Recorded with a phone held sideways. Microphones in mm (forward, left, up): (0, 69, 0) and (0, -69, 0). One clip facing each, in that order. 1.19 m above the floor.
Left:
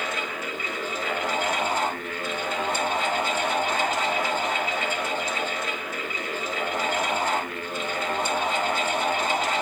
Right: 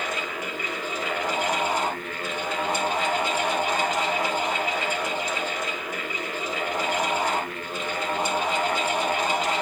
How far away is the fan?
About 6.5 m.